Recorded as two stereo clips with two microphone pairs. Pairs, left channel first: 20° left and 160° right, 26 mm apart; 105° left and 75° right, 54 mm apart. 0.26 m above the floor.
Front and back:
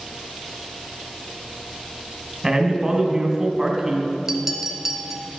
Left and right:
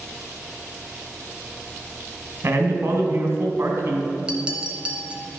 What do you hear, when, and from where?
2.4 s a man speaking: 95° right, 1.9 m
4.3 s a clink: 105° right, 0.9 m